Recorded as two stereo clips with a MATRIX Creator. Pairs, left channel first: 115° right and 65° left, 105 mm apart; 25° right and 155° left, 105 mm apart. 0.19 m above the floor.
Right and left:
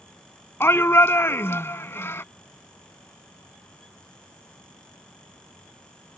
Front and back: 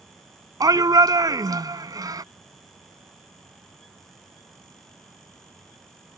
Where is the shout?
170° right.